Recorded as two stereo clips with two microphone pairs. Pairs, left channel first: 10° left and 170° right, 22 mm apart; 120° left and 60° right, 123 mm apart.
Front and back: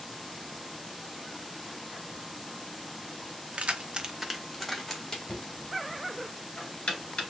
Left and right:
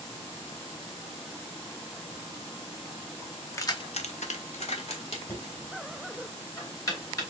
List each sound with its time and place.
3.5 s keys jangling: 175° right, 0.7 m; by 5.6 s 80° left, 2 m
5.3 s knocking: 60° left, 1.9 m